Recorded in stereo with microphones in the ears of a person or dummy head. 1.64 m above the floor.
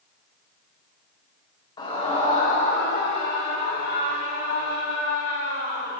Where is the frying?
No frying in this recording.